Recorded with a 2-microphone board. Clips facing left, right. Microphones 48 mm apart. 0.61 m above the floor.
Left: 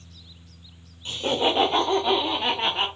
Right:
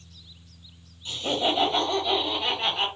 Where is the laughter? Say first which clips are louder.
Left 2 dB; 50° left (ahead or behind), 1.6 m; by 2.9 s 35° left (ahead or behind), 1.5 m.